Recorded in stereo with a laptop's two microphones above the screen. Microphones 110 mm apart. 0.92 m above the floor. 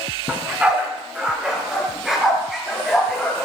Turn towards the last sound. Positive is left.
turn(degrees=0)  # may be behind; listen again after turning